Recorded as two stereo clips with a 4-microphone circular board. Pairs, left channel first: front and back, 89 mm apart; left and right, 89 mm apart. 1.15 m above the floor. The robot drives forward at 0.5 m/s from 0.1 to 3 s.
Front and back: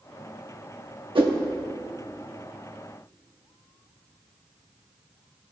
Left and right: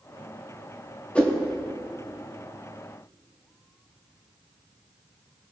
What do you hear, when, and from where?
1.1 s a whoosh: 165° left, 1.2 m